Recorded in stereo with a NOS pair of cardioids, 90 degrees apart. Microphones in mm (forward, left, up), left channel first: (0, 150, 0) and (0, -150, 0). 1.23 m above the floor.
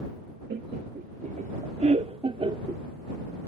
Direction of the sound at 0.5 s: 35° right.